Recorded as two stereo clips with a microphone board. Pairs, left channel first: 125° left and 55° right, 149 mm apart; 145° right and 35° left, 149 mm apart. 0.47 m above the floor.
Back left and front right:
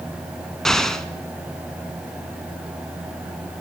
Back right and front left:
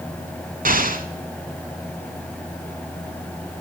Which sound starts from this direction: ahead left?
An explosion, at 0.7 s.